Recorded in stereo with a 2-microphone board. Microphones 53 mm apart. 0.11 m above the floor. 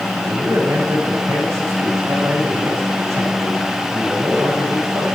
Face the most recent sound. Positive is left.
turn(degrees=-70)  # may be behind; listen again after turning